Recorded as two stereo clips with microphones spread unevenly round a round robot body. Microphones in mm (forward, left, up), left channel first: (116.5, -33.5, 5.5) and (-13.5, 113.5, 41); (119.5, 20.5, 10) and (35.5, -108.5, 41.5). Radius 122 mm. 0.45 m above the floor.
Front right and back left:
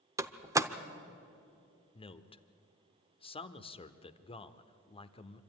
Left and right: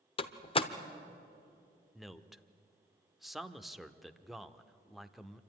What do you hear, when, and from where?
0.2 s a door slam: 50° left, 0.9 m
1.9 s a man speaking: 20° right, 0.9 m